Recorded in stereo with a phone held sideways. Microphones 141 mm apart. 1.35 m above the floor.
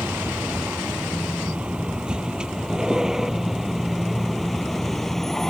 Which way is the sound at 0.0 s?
10° right (ahead or behind).